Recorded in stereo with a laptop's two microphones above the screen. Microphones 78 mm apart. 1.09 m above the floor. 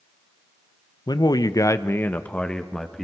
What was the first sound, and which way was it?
A man speaking, 60° left (ahead or behind).